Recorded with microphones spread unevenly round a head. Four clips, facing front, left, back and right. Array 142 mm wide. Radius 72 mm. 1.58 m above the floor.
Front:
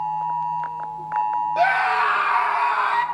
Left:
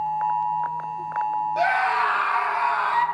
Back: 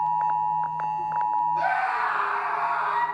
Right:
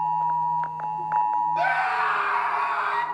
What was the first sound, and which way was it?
A scream, 15° left.